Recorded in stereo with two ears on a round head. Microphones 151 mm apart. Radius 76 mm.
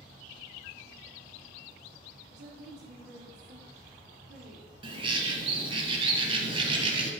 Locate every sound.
2.3 s a woman speaking: 85° right, 2.5 m
4.8 s a bird: 30° right (ahead or behind), 1.4 m